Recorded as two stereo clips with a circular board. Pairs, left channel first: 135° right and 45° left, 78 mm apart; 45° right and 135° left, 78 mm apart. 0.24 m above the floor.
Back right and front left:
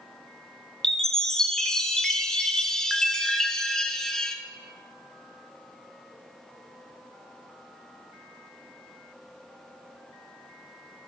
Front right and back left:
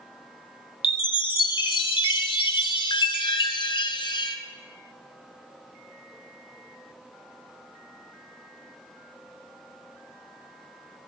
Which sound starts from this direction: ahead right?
A chime, at 0.8 s.